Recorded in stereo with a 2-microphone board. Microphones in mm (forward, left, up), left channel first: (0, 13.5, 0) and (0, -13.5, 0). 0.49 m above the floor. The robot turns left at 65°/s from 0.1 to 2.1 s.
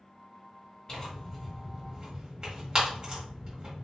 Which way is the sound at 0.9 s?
25° left (ahead or behind).